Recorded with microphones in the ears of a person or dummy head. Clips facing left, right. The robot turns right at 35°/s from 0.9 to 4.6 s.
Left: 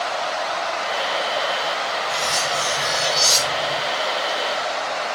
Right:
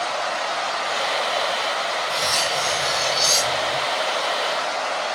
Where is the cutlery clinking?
20° right, 2.5 m; by 3.8 s 40° left, 2.5 m.